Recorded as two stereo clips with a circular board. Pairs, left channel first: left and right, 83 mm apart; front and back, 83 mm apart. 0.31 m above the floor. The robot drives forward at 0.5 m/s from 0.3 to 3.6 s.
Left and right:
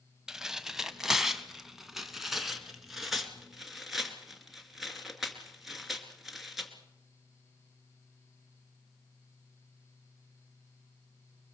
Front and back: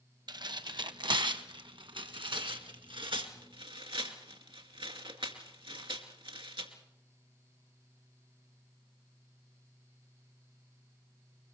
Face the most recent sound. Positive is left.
turn(degrees=180)